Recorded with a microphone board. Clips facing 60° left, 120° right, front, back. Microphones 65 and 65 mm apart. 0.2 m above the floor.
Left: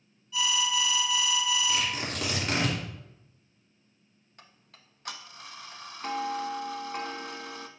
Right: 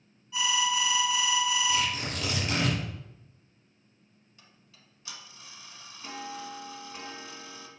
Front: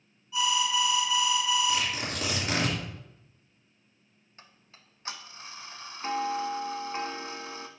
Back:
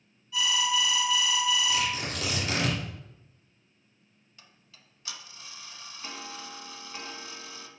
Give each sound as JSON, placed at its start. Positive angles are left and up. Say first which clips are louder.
{"t": 0.3, "sound": "an alarm", "louder": "right 1 dB, front 1 dB", "azimuth_deg": -60, "distance_m": 3.0}
{"t": 1.7, "sound": "tearing paper", "louder": "right 1 dB, even", "azimuth_deg": 55, "distance_m": 2.5}
{"t": 4.4, "sound": "ticking", "louder": "left 5 dB, front 3 dB", "azimuth_deg": 45, "distance_m": 0.6}